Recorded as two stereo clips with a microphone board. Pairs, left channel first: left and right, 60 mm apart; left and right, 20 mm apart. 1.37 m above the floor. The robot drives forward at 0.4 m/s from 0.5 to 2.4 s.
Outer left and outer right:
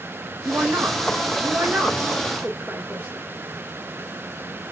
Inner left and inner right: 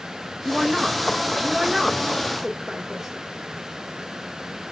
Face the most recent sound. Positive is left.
turn(degrees=-30)  # may be behind; listen again after turning